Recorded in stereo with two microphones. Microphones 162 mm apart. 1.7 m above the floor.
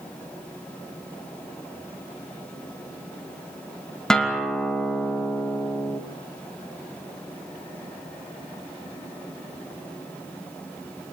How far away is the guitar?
About 2.5 m.